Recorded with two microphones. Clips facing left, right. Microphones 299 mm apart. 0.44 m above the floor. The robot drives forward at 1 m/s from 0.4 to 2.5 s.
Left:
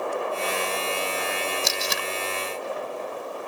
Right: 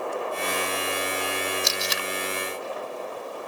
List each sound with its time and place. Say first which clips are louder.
1.6 s tape being pulled: left 1 dB; 65° left (ahead or behind); by 2.1 s 55° left (ahead or behind)